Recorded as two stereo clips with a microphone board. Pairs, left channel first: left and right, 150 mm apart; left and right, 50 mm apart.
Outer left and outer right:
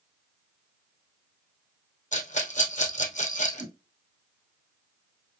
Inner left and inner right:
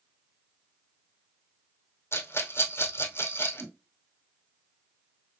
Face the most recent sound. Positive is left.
turn(degrees=-40)  # may be behind; listen again after turning